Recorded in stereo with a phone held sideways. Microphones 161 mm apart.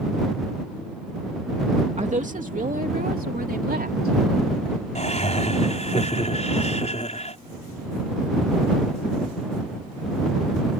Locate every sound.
2.0 s a woman speaking: 45° right (ahead or behind); by 4.2 s 75° right (ahead or behind)
5.0 s laughter: 45° left (ahead or behind)